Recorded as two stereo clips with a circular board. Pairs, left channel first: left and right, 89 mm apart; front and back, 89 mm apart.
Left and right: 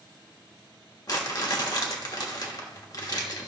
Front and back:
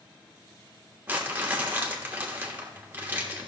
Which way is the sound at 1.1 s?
115° left.